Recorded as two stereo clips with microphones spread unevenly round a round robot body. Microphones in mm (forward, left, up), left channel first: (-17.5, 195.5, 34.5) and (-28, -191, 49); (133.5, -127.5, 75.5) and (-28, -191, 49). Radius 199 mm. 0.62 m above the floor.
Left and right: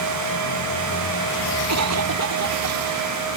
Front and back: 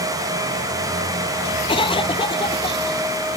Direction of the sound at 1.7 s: 40° right.